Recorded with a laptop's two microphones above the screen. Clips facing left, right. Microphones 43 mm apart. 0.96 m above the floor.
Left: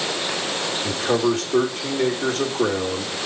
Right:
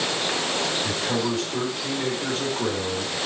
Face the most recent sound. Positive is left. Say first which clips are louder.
# left 5 dB
turn(degrees=55)  # may be behind; listen again after turning